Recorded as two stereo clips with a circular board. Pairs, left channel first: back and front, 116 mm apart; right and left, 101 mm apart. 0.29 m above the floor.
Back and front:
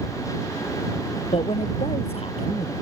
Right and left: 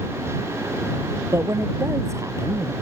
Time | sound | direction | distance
1.3 | a man speaking | 150° left | ?